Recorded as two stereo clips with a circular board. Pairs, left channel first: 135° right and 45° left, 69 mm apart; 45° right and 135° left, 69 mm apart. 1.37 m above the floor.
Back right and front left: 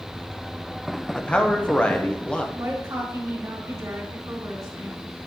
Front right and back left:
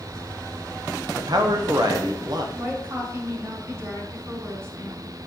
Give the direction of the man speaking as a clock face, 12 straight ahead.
7 o'clock.